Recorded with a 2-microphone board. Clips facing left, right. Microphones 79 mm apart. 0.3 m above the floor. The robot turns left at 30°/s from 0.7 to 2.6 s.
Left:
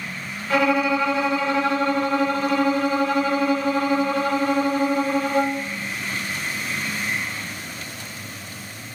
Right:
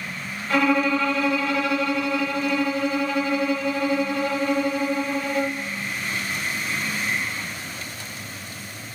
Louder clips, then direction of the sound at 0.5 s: Left 1 dB; 175° left.